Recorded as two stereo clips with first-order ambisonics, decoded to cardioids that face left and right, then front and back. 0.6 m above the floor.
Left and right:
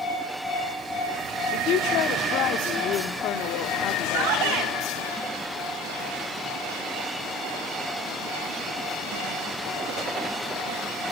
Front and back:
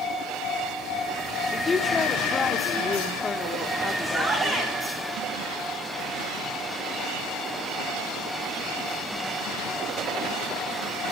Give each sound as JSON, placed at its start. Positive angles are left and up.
{"t": 1.5, "sound": "a woman speaking", "azimuth_deg": 65, "distance_m": 1.0}
{"t": 4.0, "sound": "a shout", "azimuth_deg": -105, "distance_m": 4.0}